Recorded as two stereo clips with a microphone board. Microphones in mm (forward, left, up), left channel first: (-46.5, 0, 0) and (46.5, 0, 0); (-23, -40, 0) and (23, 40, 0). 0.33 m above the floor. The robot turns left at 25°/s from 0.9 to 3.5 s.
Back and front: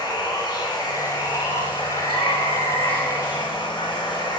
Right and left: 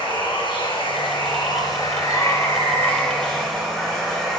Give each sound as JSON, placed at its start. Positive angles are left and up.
{"t": 0.0, "sound": "running water", "azimuth_deg": -140, "distance_m": 3.0}